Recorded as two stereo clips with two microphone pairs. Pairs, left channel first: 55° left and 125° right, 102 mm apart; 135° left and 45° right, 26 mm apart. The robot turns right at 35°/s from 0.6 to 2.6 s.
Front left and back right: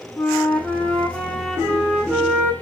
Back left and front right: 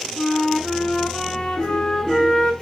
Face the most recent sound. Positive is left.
turn(degrees=-175)